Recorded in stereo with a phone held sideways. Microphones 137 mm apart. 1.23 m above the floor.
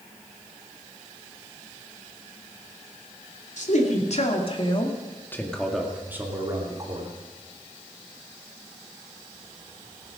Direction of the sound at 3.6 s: 65° left (ahead or behind).